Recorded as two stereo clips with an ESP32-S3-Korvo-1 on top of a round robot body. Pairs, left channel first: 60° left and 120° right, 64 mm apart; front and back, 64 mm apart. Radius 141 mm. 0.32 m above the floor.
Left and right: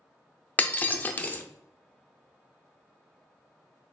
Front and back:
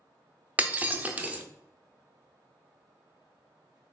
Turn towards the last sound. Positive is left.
turn(degrees=120)